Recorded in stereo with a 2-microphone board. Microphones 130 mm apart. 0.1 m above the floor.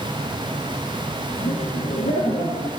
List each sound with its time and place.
1.4 s laughter: 80° left, 5.5 m